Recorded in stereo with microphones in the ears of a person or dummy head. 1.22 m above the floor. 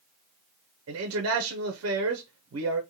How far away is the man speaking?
About 0.5 m.